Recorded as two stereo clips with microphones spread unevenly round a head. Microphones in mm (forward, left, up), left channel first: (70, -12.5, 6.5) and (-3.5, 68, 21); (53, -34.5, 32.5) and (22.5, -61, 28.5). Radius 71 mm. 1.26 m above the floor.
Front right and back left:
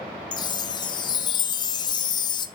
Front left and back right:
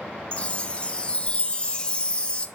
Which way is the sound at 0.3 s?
5° right.